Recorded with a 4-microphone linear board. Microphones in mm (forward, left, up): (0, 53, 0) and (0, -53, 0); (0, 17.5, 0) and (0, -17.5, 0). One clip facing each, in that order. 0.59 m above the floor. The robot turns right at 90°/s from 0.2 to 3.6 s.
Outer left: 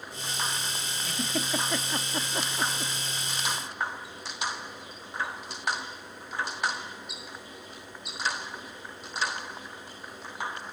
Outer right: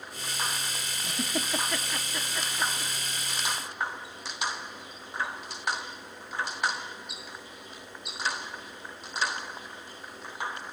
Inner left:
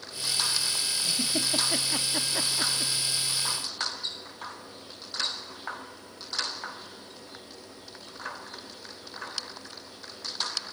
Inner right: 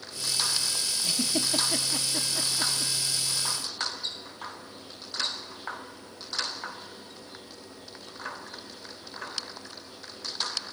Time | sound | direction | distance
1.0 | a giggle | 20° right (ahead or behind) | 1.3 m